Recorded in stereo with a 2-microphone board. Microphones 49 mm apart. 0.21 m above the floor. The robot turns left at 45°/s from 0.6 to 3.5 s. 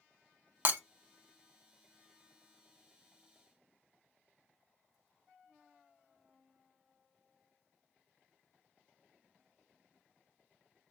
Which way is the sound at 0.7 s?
45° right (ahead or behind).